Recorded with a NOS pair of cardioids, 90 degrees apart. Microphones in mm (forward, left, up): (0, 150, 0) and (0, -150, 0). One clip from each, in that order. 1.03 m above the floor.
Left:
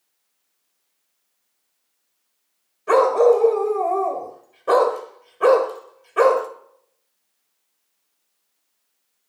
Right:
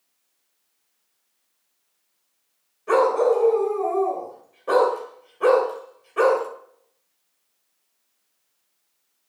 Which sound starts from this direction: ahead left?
A dog barking, at 2.9 s.